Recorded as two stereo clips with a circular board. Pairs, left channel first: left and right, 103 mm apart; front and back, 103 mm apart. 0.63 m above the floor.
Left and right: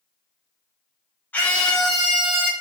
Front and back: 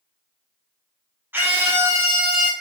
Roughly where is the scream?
Behind left.